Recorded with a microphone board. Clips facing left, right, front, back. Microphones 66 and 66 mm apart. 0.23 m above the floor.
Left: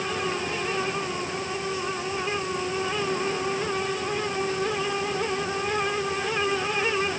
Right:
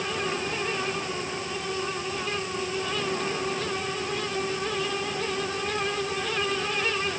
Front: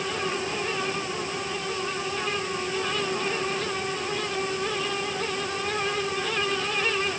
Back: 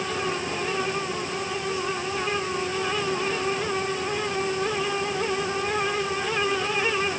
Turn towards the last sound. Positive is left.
No sound to turn to.